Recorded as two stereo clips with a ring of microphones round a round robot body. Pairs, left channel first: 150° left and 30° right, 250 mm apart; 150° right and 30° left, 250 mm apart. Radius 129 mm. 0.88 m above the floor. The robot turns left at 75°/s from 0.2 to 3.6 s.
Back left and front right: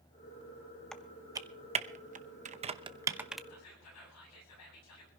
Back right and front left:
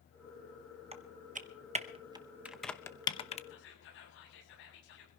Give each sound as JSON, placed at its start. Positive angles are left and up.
{"t": 0.9, "sound": "typing on a keyboard", "azimuth_deg": 65, "distance_m": 0.9}
{"t": 3.5, "sound": "whispering", "azimuth_deg": 175, "distance_m": 7.5}